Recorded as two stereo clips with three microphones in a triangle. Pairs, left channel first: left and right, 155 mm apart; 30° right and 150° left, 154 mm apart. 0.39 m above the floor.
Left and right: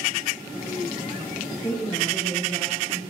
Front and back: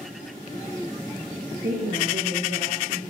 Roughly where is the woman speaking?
Behind.